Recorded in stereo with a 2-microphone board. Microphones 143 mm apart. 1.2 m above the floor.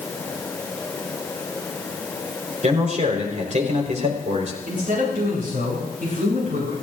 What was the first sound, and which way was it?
A man speaking, 50° right (ahead or behind).